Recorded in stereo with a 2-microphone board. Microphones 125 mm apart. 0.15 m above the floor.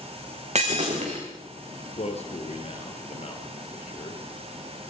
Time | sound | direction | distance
0.6 | breaking glass | 65° right (ahead or behind) | 6.5 m
2.0 | a man speaking | 60° left (ahead or behind) | 3.5 m